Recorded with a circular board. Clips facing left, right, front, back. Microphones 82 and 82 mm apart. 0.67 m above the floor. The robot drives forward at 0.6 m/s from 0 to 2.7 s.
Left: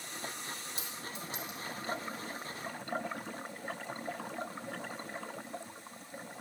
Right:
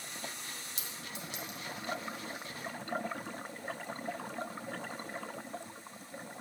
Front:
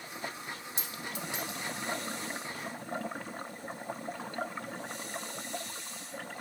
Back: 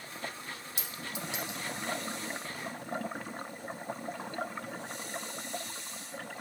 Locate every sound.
0.8 s a clink: 95° right, 1.3 m; by 1.6 s 115° right, 1.4 m